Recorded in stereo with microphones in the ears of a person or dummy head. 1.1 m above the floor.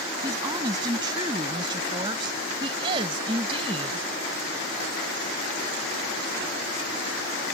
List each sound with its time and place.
0.2 s a woman speaking: 30° right (ahead or behind); by 4.1 s 40° right (ahead or behind)